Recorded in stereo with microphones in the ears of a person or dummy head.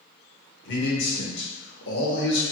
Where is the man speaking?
70° left (ahead or behind), 1.1 m.